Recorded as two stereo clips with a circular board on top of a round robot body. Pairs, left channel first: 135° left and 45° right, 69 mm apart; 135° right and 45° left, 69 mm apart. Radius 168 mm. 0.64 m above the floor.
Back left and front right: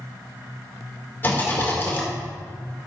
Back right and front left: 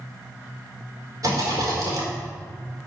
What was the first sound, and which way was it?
A rattle, 80° left.